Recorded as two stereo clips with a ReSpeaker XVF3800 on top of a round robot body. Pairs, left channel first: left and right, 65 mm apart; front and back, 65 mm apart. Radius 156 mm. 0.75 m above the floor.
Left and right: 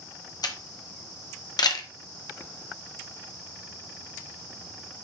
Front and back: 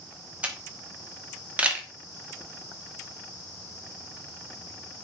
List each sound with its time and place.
0.4 s a camera shutter: 110° left, 1.6 m